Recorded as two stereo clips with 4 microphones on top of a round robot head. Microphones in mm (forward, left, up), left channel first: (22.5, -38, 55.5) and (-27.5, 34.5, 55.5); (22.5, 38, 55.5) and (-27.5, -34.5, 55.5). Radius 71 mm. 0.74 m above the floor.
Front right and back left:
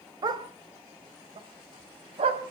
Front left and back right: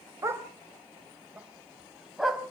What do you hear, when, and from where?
0.2 s a dog barking: 175° left, 2.0 m; by 2.4 s 145° left, 2.5 m